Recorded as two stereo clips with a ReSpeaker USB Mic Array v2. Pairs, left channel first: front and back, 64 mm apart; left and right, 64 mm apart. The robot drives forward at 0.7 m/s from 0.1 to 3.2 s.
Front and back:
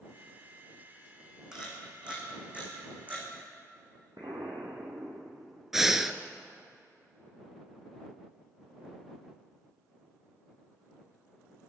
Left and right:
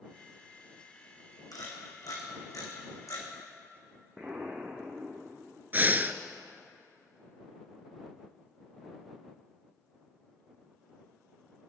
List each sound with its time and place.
1.5 s a camera shutter: 100° left, 3.5 m; by 3.3 s 120° left, 4 m
4.2 s an explosion: 155° right, 2.5 m
5.7 s breathing: 100° right, 0.7 m